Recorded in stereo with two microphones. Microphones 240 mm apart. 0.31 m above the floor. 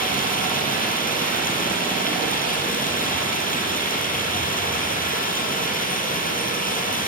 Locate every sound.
0.0 s running water: 35° left (ahead or behind), 7.5 m